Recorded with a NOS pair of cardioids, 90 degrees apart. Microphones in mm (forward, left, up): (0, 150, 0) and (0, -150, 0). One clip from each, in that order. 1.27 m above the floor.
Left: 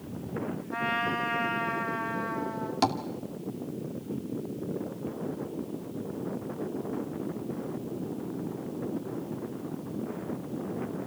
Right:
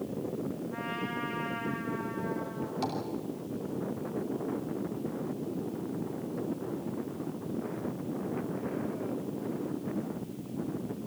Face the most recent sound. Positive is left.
turn(degrees=70)